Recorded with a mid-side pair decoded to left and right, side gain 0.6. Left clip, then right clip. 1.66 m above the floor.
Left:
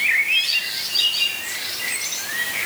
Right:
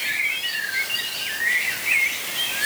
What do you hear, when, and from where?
Only background noise.